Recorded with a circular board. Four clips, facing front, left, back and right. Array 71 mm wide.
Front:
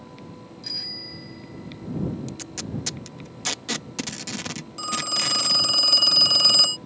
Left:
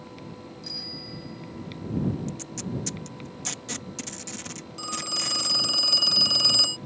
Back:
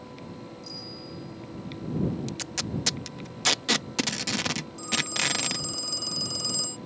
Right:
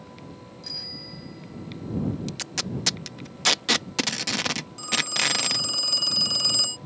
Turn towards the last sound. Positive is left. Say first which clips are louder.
# right 4 dB, front 4 dB
turn(degrees=10)